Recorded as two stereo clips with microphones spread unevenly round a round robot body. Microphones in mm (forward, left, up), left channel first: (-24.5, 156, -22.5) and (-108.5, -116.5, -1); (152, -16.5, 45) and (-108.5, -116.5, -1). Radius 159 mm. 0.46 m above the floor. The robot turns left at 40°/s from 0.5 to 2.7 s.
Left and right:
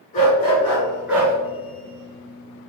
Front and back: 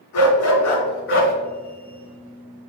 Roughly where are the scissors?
I don't hear scissors.